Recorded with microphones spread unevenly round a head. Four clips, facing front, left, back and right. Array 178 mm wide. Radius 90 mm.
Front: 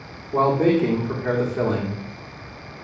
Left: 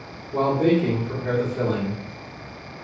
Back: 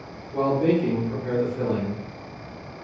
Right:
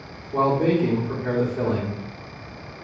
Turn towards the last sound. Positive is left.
turn(degrees=-5)